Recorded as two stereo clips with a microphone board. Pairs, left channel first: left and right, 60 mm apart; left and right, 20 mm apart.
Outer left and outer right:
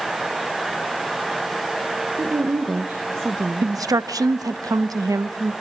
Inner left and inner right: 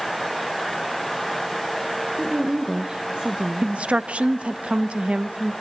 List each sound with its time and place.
2.2 s a woman speaking: 50° right (ahead or behind), 1.3 m
3.6 s a woman speaking: 85° right, 0.9 m